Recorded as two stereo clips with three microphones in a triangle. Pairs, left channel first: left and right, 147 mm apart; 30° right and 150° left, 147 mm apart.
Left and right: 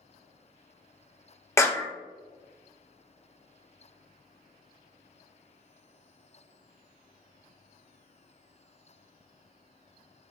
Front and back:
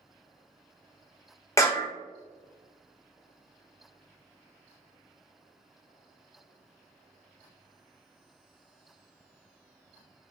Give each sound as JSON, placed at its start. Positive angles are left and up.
{"t": 1.6, "sound": "a clap", "azimuth_deg": 25, "distance_m": 0.6}